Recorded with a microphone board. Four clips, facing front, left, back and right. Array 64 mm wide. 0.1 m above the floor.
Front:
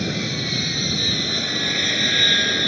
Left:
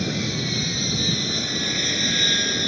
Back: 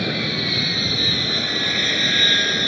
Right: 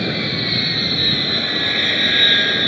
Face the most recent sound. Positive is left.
turn(degrees=-90)